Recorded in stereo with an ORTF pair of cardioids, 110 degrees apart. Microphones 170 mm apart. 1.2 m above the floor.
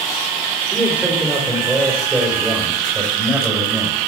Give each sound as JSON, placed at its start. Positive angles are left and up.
{"t": 0.7, "sound": "a man speaking", "azimuth_deg": -10, "distance_m": 4.5}